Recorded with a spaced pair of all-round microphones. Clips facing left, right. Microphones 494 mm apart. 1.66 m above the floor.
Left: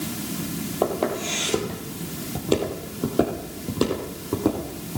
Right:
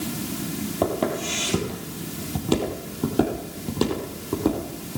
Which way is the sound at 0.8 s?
40° right (ahead or behind).